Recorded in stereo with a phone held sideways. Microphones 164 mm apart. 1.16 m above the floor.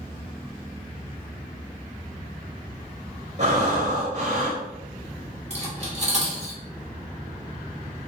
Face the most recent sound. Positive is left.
turn(degrees=-45)  # may be behind; listen again after turning